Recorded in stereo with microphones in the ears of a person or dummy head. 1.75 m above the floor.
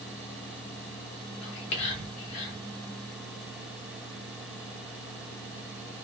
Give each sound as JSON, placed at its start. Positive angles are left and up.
{"t": 1.4, "sound": "whispering", "side_deg": 70, "distance_m": 2.5}